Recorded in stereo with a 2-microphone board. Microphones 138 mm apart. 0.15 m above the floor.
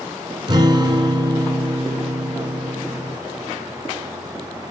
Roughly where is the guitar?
Right.